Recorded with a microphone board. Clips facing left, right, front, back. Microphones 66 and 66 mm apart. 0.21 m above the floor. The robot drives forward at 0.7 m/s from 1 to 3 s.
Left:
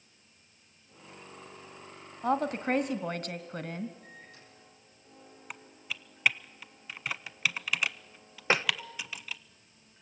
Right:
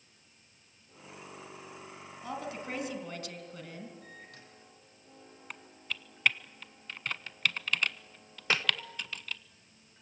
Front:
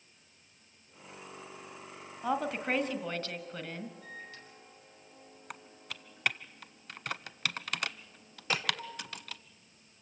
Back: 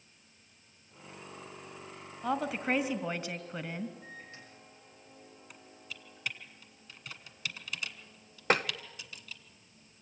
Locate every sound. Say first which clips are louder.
2.2 s a woman speaking: left 10 dB, even; 85° left, 1.6 m; by 3.9 s 110° left, 1.7 m
4.0 s a microwave: right 1 dB, front 1 dB; 115° right, 5.5 m
5.5 s typing on a keyboard: even, front 6 dB; 10° left, 0.6 m
8.5 s tapping: left 4 dB, back 7 dB; 150° left, 0.8 m